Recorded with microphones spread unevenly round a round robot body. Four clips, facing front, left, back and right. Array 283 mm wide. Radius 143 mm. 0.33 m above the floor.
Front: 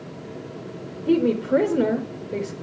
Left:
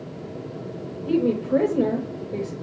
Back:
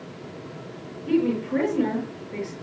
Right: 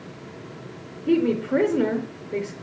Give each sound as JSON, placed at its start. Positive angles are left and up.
{"t": 1.1, "sound": "a woman speaking", "azimuth_deg": -50, "distance_m": 4.0}